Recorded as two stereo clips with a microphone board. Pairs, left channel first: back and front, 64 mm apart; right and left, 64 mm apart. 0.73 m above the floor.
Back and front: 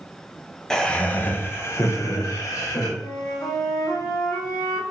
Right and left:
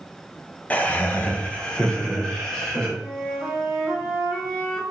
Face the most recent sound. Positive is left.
turn(degrees=-170)